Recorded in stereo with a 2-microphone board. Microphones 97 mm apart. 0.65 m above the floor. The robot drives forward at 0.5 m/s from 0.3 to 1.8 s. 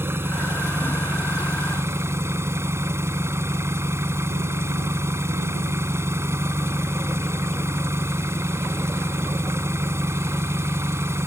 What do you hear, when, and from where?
0.0 s an engine running: 25° right (ahead or behind)